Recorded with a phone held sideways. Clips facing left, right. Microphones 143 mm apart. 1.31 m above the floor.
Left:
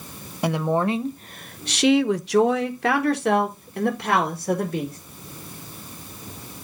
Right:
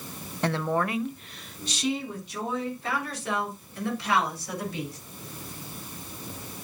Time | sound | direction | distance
0.4 | a woman speaking | 10° left (ahead or behind) | 0.9 m